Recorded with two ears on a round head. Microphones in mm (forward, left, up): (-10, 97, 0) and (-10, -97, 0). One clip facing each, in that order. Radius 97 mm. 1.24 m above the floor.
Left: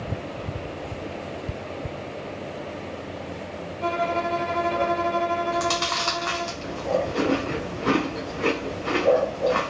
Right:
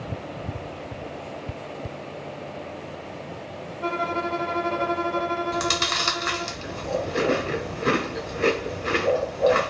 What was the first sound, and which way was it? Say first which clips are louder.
A violin: left 2 dB; 25° left (ahead or behind).